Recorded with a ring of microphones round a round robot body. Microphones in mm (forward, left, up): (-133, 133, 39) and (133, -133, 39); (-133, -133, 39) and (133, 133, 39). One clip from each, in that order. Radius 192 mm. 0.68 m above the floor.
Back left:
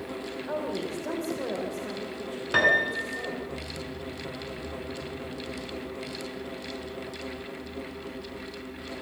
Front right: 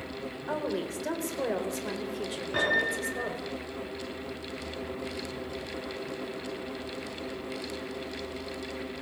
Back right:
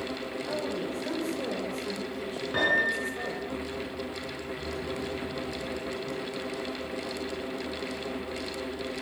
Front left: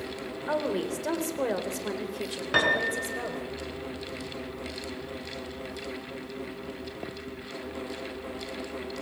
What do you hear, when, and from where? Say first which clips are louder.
0.5 s a woman speaking: even, front left 6 dB; 30° left, 3.5 m; by 3.4 s 15° right, 4.5 m
2.5 s a piano: back left 5 dB, front left 1 dB; 95° left, 5.5 m